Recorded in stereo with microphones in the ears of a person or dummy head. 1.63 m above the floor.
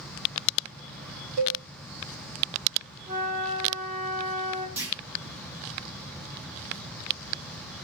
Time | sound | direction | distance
1.4 | a cowbell | 55° right (ahead or behind) | 1.1 m
3.1 | a flute | 40° right (ahead or behind) | 1.1 m
4.8 | a clunk | 10° right (ahead or behind) | 0.8 m